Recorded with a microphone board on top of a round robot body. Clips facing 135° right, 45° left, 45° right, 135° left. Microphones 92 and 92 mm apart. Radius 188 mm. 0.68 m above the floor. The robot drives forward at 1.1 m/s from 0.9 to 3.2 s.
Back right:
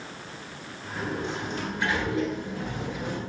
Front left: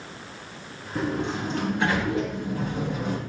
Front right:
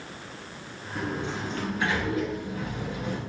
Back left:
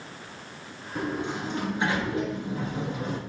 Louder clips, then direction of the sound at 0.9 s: Front left 4 dB, back left 1 dB; 60° left.